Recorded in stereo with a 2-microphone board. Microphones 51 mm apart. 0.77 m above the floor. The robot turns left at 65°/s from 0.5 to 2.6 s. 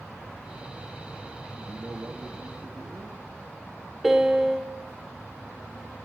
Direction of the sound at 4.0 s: 5° right (ahead or behind).